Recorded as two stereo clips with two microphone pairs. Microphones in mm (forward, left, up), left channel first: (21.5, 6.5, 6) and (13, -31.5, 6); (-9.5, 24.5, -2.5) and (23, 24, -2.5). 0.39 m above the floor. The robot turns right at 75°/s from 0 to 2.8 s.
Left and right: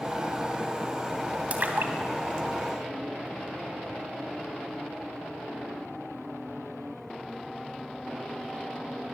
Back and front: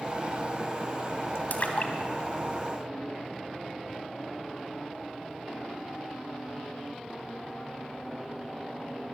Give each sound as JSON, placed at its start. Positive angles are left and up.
{"t": 1.5, "sound": "a splash", "azimuth_deg": -150, "distance_m": 3.0}